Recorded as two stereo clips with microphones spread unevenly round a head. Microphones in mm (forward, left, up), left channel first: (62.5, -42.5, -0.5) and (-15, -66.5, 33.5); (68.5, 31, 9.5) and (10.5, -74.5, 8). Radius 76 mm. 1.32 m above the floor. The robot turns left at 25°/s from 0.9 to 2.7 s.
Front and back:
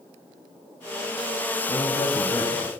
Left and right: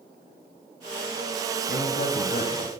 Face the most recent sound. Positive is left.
turn(degrees=40)